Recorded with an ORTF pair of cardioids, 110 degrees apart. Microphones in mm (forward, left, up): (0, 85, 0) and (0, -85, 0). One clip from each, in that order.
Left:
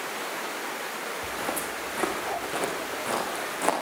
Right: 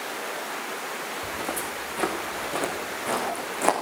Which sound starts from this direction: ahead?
Footsteps, at 1.2 s.